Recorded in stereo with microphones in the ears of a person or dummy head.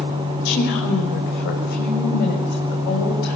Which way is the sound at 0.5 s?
60° left (ahead or behind).